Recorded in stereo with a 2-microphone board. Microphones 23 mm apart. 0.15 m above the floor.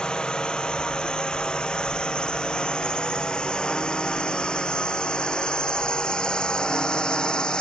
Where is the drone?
40° left (ahead or behind); by 7.6 s 35° left (ahead or behind).